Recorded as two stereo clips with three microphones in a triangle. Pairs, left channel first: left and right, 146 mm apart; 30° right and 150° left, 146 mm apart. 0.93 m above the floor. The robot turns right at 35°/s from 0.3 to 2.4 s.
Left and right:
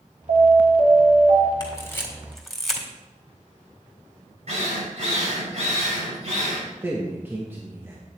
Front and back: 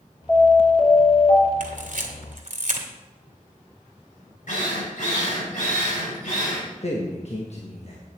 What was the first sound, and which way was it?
An alarm, 110° right.